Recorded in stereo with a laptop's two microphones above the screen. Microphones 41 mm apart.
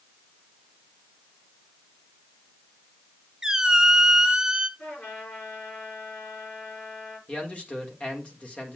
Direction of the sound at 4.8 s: 45° left (ahead or behind).